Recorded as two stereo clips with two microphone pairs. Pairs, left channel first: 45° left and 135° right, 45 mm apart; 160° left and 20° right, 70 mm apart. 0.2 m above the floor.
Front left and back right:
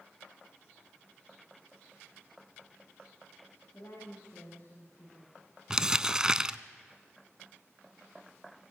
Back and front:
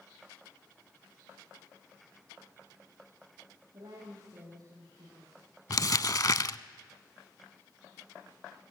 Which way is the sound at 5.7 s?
160° left.